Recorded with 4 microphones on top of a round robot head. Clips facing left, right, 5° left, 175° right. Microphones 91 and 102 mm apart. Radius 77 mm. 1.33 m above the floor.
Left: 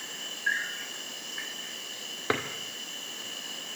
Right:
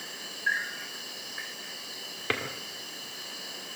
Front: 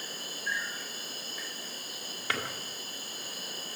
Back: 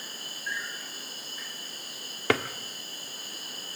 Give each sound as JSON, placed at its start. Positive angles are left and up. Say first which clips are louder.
{"t": 0.0, "sound": "an insect", "louder": "right 1 dB, front 2 dB", "azimuth_deg": -5, "distance_m": 4.5}
{"t": 2.3, "sound": "a drawer", "louder": "left 3 dB, back 9 dB", "azimuth_deg": 165, "distance_m": 1.4}